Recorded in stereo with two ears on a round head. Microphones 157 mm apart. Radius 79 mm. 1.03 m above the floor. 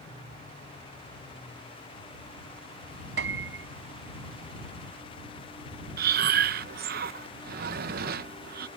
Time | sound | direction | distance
3.2 | a piano | 70° right (ahead or behind) | ?
6.0 | breathing | 55° right (ahead or behind) | ?